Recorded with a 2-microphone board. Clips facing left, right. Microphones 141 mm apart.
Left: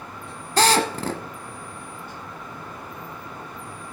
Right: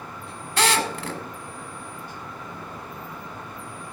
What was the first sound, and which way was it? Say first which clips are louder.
A drill: left 4 dB; 40° left (ahead or behind).